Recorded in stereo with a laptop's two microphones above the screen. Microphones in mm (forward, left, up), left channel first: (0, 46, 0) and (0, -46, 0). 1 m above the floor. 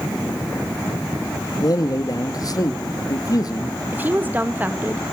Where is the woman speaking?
20° right (ahead or behind), 0.9 m.